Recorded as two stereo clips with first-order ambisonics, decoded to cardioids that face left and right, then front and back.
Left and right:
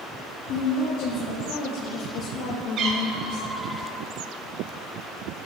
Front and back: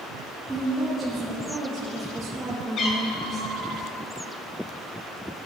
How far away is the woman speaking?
About 3.5 m.